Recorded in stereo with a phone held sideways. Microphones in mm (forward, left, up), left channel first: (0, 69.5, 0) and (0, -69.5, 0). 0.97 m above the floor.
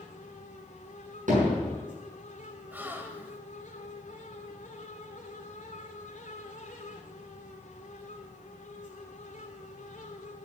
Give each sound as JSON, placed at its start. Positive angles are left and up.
{"t": 0.0, "sound": "a fan", "side_deg": 85, "distance_m": 2.5}
{"t": 1.3, "sound": "hammering", "side_deg": -85, "distance_m": 7.0}
{"t": 2.7, "sound": "a gasp", "side_deg": -15, "distance_m": 1.4}